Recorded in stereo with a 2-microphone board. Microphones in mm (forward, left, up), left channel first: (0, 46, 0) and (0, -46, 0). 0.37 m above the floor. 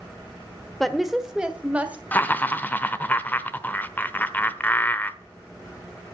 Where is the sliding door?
No sliding door in this recording.